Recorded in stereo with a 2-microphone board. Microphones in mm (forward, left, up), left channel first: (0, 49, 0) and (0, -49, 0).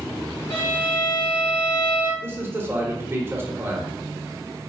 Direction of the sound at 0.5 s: 70° left (ahead or behind).